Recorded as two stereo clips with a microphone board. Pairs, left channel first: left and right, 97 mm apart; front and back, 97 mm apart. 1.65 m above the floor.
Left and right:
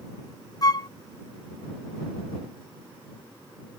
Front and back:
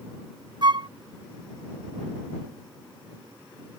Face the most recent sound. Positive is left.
turn(degrees=140)